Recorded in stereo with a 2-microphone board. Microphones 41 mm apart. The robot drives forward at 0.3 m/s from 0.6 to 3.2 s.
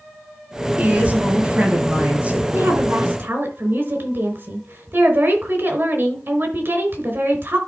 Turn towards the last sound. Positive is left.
turn(degrees=-55)  # may be behind; listen again after turning